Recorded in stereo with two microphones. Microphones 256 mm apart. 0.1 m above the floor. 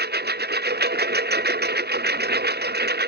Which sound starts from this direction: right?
A lawn mower, at 0.0 s.